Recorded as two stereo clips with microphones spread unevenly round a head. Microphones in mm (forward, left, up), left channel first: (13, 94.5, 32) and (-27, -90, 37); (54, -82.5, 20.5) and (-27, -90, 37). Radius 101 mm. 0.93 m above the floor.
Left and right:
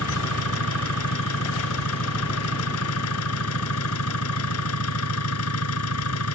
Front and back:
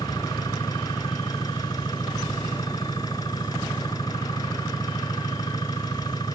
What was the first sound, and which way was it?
An engine running, 80° left.